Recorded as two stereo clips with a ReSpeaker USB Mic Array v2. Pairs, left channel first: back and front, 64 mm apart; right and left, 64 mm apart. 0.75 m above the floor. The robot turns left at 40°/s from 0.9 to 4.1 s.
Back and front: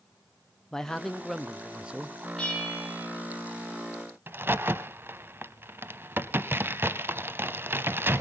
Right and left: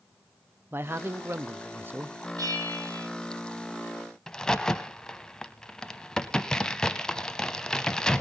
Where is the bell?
110° left, 6 m; by 3.1 s 80° left, 6 m.